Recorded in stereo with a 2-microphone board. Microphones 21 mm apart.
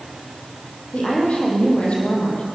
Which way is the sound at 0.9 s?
65° left (ahead or behind).